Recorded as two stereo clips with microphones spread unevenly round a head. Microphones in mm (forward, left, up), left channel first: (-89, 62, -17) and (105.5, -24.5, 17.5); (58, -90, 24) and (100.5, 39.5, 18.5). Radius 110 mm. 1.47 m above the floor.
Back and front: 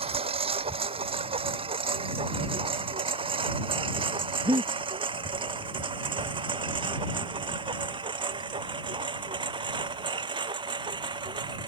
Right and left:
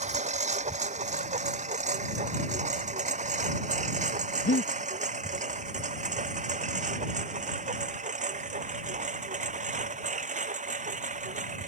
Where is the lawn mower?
40° left; by 11.7 s 45° left.